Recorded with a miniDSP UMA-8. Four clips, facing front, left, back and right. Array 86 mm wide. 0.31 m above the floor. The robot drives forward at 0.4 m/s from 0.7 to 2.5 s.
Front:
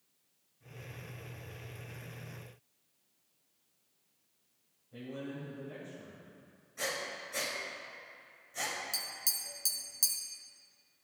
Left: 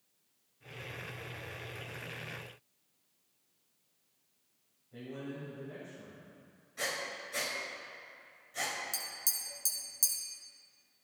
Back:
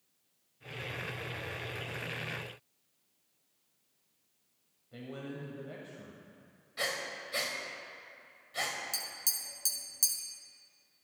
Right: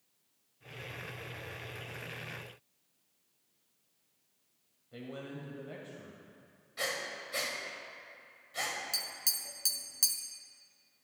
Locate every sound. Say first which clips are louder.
4.9 s a man speaking: left 1 dB, front 1 dB; 130° right, 1.1 m
6.8 s breathing: right 1 dB, back 1 dB; 150° right, 1.3 m
8.9 s tapping: right 1 dB, even; 95° right, 0.8 m